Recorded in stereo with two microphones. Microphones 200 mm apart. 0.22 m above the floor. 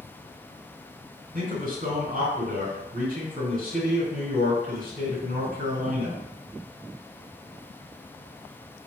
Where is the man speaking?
45° right (ahead or behind), 1.9 m.